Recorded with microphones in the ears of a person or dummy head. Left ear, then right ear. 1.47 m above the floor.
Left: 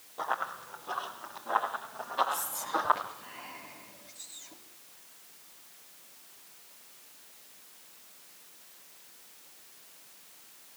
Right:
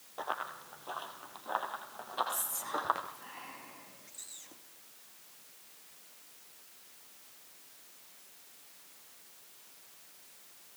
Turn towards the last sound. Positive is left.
turn(degrees=-40)  # may be behind; listen again after turning